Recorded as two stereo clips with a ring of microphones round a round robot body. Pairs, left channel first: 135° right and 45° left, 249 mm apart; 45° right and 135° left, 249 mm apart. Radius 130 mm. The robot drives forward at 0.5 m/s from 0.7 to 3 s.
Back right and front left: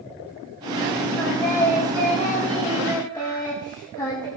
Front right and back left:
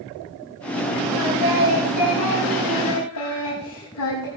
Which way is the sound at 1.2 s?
55° right.